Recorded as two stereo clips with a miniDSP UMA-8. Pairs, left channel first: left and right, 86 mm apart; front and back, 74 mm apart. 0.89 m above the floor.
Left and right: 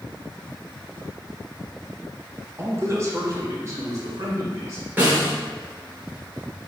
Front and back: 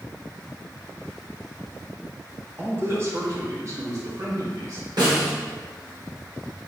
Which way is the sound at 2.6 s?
130° right.